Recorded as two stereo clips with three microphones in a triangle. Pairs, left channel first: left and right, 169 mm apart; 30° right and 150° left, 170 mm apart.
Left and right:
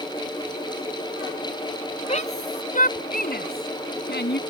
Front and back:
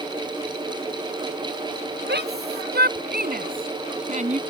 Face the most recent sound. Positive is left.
turn(degrees=100)